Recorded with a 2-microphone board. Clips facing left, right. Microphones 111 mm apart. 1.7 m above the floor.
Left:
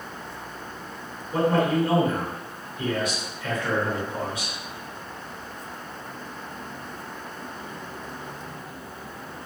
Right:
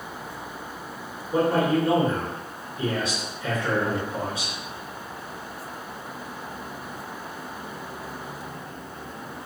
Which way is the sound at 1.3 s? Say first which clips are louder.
Even; 30° right (ahead or behind).